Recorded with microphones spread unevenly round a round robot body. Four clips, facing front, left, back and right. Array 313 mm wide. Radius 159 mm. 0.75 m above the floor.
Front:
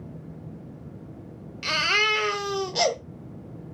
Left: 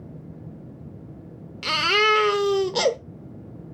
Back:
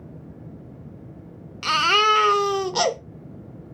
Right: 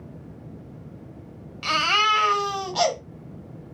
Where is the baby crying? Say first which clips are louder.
Left 1 dB, back 7 dB; 120° left, 0.9 m.